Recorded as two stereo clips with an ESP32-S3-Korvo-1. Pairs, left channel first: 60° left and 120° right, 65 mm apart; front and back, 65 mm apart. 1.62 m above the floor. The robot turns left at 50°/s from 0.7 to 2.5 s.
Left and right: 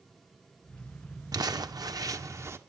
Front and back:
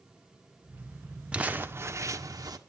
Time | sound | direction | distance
1.3 | crumpling | 110° right | 1.4 m